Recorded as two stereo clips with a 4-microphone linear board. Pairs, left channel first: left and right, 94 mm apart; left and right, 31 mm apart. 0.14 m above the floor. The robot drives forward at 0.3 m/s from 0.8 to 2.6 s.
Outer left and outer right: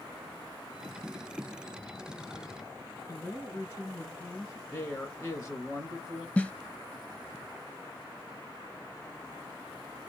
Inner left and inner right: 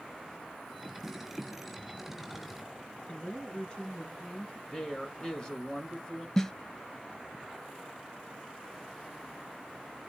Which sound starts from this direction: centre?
A snare drum, at 6.4 s.